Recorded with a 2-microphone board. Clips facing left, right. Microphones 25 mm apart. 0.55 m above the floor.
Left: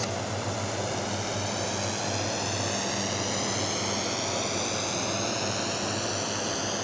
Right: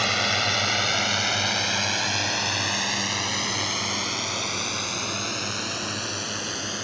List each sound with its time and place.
0.0 s a drone: 60° right (ahead or behind); by 6.8 s 10° right (ahead or behind)